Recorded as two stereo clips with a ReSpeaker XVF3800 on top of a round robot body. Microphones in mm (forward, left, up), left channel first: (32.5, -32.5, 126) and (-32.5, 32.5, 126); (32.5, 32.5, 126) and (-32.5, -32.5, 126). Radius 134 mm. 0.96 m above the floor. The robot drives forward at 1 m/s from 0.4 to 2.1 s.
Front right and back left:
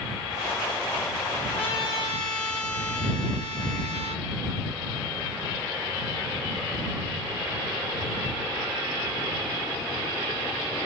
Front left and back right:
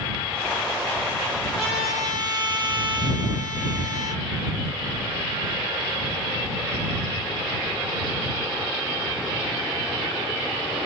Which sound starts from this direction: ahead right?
A trumpet, at 1.6 s.